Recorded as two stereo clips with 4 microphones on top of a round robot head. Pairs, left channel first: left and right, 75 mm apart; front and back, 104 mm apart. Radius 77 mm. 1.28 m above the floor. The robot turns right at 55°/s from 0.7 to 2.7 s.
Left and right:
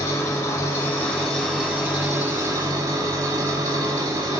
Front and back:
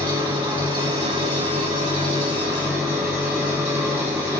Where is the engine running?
140° left, 4 m; by 4.4 s 110° right, 4 m.